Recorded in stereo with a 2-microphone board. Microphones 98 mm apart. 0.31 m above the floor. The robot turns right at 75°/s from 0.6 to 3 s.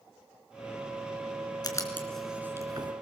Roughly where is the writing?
Left.